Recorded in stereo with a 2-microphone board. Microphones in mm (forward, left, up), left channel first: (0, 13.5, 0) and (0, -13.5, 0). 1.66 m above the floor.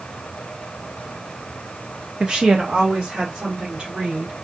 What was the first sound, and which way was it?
A woman speaking, 35° right (ahead or behind).